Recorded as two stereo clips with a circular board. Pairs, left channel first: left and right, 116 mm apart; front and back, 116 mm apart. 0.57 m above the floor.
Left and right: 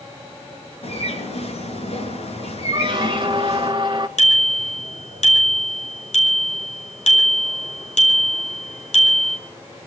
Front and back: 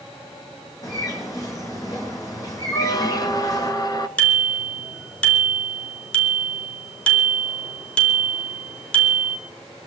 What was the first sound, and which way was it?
A bird, 60° left.